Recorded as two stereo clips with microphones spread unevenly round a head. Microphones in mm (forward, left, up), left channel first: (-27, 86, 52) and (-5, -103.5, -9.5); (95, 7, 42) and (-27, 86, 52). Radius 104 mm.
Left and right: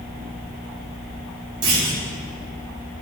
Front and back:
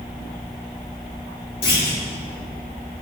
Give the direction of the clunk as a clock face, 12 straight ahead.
2 o'clock.